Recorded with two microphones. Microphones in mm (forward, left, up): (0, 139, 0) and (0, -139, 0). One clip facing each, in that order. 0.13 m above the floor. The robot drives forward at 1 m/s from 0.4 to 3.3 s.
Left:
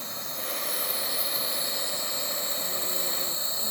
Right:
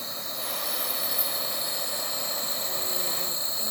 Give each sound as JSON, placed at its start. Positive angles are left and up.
{"t": 0.0, "sound": "an insect", "side_deg": -45, "distance_m": 3.5}